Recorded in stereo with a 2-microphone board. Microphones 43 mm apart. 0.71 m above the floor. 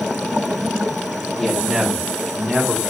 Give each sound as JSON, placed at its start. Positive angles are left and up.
{"t": 1.4, "sound": "a man speaking", "side_deg": 5, "distance_m": 1.0}